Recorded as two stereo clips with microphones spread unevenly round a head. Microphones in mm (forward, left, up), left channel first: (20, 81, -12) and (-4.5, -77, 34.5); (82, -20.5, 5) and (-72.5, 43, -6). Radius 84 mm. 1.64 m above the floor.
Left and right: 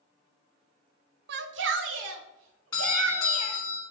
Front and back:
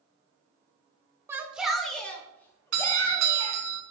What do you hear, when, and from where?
1.3 s a shout: 125° right, 0.6 m; by 3.6 s 95° right, 1.8 m
2.7 s a doorbell: 150° left, 1.7 m